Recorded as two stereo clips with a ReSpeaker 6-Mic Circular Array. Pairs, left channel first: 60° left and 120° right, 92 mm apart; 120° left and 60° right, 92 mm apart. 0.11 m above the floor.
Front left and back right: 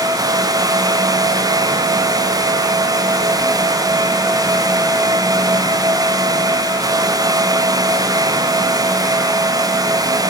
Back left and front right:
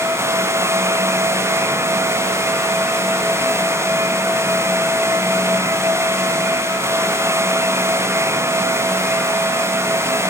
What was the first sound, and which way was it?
Only background noise.